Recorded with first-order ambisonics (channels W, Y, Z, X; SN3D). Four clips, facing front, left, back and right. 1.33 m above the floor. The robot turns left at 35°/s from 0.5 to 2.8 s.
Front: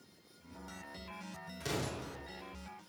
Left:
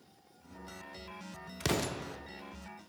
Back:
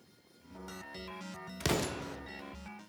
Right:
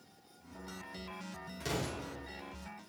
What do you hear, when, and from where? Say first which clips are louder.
1.6 s an explosion: left 4 dB, back 5 dB; 140° left, 0.7 m; by 2.2 s 115° left, 0.7 m